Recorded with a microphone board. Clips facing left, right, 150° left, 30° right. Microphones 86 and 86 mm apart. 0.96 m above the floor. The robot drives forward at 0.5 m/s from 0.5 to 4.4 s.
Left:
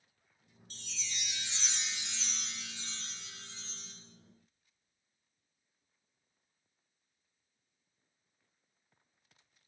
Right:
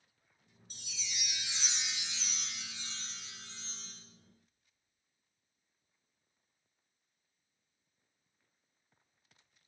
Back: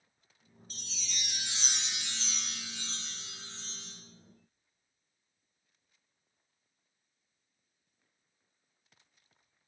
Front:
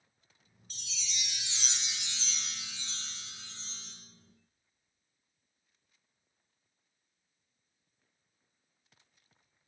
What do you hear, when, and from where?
0.7 s a chime: 165° right, 0.6 m; by 3.9 s 175° right, 2 m